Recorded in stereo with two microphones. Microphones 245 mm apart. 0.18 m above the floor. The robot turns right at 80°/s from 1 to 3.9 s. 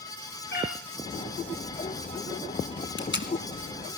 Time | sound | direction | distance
0.5 | a cat meowing | 45° left (ahead or behind) | 6.5 m
3.0 | tape being pulled | 50° left (ahead or behind) | 1.5 m